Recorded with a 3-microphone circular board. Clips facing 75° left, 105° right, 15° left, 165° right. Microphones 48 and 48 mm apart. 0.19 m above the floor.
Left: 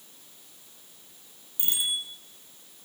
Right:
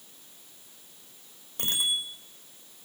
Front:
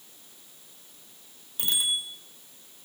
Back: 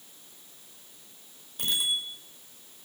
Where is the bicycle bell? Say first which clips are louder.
Right 2 dB, even; 75° right, 5.5 m.